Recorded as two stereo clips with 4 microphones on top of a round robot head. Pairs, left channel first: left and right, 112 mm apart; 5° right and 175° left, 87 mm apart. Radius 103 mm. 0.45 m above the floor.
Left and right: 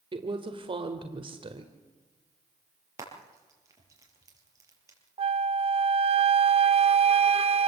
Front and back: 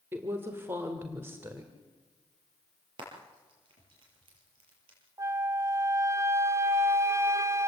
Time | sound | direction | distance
0.1 | a woman speaking | 120° right | 2 m
3.0 | frying | 150° right | 6 m
5.2 | a flute | 120° right | 0.7 m